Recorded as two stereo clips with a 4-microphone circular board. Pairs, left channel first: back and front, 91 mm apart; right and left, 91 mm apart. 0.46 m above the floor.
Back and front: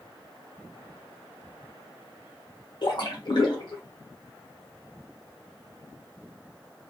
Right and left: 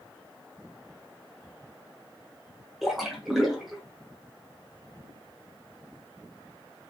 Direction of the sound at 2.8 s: 175° left.